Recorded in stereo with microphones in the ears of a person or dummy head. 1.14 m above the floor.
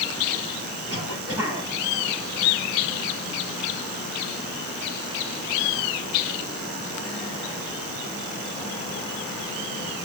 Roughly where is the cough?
Right.